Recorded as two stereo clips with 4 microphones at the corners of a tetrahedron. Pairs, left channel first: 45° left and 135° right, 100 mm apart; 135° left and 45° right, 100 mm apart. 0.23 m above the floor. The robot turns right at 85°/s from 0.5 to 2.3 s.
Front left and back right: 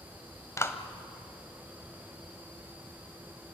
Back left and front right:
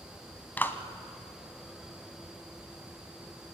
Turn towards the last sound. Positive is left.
turn(degrees=-135)